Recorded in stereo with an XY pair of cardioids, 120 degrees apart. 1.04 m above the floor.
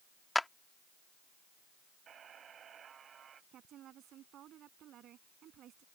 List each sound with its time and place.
0.3 s a clap: 5° left
2.1 s a buzzer: 45° right
3.5 s a woman speaking: 60° right